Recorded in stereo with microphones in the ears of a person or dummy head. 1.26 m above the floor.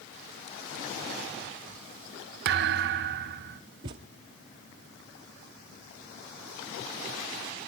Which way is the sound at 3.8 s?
25° right (ahead or behind).